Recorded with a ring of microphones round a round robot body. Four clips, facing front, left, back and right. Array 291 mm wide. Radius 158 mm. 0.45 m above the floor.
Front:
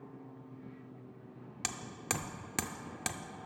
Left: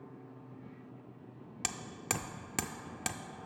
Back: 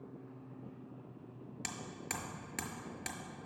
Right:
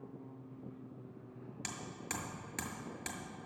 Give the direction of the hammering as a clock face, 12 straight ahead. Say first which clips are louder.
Left 6 dB, front 5 dB; 10 o'clock.